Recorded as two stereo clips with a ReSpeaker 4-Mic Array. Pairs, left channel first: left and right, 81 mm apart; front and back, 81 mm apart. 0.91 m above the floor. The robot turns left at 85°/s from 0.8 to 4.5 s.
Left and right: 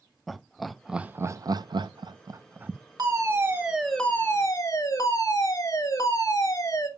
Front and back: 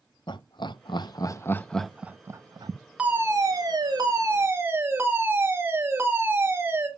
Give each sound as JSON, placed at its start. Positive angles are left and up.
{"t": 0.3, "sound": "laughter", "azimuth_deg": 0, "distance_m": 0.6}
{"t": 3.0, "sound": "a fire alarm", "azimuth_deg": -110, "distance_m": 2.0}